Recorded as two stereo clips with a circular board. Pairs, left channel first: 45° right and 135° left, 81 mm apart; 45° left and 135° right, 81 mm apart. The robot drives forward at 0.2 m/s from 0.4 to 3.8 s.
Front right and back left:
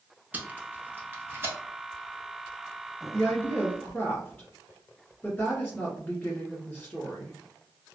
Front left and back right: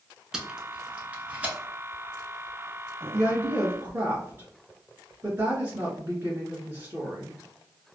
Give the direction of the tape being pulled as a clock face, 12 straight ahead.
7 o'clock.